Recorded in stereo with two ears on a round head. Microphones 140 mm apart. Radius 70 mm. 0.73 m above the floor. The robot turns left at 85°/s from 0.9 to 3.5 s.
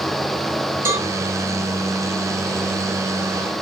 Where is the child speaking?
I don't hear a child speaking.